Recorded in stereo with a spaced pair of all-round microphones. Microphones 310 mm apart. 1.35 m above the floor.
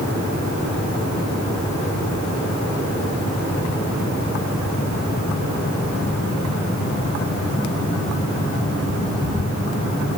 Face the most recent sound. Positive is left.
No sound to turn to.